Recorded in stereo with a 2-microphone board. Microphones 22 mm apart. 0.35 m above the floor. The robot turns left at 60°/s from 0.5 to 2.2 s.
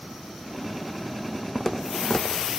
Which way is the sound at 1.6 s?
10° left (ahead or behind).